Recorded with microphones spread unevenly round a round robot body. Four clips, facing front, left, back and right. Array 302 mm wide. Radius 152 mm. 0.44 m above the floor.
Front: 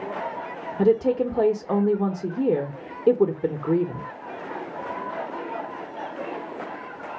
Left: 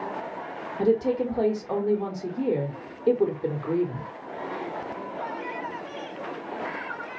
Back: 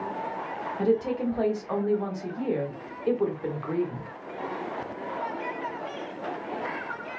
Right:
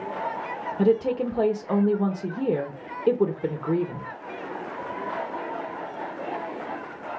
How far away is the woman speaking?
About 0.9 m.